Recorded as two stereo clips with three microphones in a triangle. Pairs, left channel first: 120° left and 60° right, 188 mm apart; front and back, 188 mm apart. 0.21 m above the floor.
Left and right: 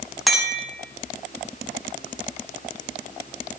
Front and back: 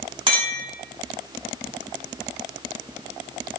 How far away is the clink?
About 1.0 m.